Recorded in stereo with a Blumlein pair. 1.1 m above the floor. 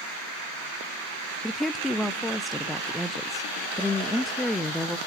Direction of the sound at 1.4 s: 5° left.